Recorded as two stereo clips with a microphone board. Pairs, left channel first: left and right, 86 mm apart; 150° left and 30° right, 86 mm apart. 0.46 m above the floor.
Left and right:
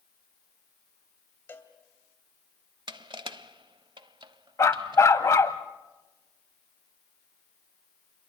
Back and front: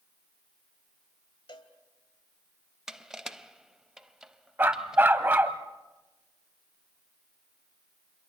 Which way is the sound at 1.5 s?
150° left.